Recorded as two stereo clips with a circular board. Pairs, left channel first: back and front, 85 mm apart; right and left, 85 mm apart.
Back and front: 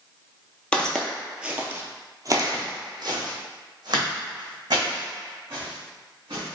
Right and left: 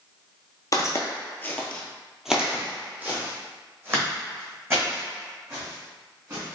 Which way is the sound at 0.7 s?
105° right.